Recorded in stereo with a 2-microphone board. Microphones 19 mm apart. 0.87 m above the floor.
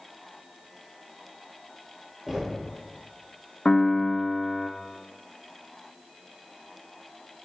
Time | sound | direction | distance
2.3 | knocking | 15° right (ahead or behind) | 3 m
3.6 | a piano | 50° left (ahead or behind) | 0.6 m